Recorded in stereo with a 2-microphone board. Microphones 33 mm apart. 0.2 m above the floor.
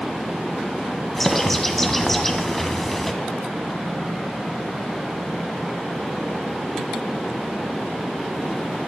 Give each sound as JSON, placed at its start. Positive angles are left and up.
{"t": 1.2, "sound": "a bird", "side_deg": 10, "distance_m": 1.4}